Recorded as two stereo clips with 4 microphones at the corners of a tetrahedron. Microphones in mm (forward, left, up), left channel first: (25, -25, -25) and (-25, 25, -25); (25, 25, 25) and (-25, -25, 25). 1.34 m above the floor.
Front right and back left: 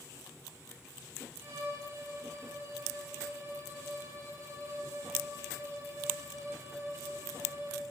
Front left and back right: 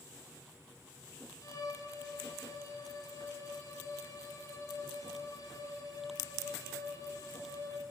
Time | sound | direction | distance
1.4 | a violin | 85° left | 6 m